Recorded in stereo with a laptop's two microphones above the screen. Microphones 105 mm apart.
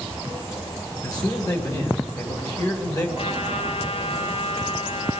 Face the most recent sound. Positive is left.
turn(degrees=75)  # may be behind; listen again after turning